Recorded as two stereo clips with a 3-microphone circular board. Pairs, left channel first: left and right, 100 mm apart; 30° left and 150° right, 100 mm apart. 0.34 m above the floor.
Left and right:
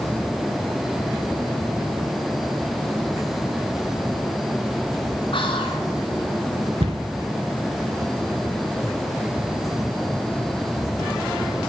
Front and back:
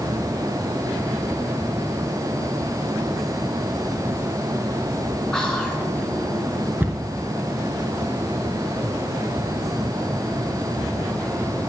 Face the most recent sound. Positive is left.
turn(degrees=-80)